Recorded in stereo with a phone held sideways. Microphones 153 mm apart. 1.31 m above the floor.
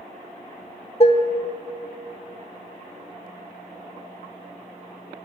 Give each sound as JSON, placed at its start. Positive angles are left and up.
{"t": 1.0, "sound": "dishes clattering", "side_deg": 40, "distance_m": 0.9}